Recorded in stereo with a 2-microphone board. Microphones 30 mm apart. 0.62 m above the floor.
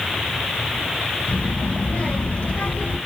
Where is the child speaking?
45° left (ahead or behind), 2.5 m; by 3.0 s 70° left (ahead or behind), 2.5 m.